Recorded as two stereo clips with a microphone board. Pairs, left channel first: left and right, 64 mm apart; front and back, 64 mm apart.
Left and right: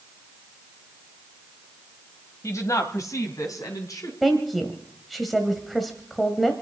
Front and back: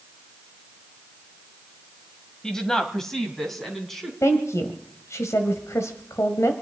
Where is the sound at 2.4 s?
80° left, 1.7 m; by 4.1 s 85° left, 3 m.